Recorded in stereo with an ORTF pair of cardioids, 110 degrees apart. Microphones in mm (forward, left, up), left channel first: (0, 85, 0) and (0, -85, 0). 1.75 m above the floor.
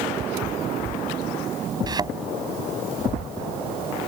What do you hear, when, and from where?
1.9 s a thud: 25° right